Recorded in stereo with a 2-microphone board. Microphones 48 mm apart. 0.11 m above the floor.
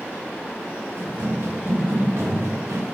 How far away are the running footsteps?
About 2.5 m.